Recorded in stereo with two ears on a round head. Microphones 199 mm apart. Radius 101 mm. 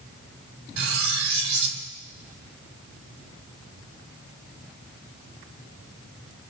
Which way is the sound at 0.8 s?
75° right (ahead or behind).